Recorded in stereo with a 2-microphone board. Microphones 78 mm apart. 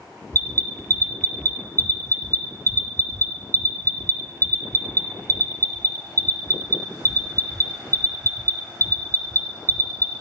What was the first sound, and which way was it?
An alarm, 45° right (ahead or behind).